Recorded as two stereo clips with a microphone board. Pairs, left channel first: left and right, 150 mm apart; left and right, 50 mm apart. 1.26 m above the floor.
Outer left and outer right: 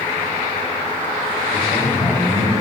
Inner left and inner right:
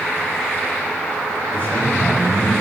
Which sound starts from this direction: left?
A man speaking, at 1.5 s.